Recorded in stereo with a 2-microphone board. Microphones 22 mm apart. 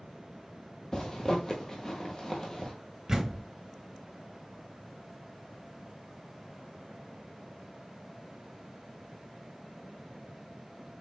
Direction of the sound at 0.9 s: 30° left (ahead or behind).